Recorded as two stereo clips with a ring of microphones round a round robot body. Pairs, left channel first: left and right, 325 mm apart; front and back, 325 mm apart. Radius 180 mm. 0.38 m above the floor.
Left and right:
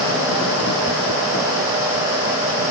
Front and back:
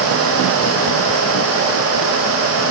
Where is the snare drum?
No snare drum in this recording.